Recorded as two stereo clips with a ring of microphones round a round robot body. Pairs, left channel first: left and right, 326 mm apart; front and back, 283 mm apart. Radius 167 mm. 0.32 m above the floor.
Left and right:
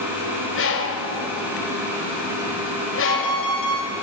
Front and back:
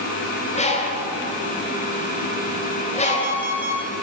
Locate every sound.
0.6 s a bird: 60° left, 1.9 m
3.0 s an alarm clock: 120° left, 3 m